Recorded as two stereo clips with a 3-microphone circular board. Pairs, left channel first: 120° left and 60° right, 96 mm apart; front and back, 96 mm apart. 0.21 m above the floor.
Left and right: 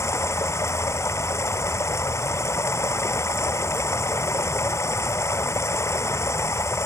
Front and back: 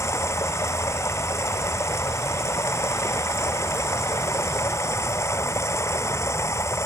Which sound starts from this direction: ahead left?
Running water, at 0.0 s.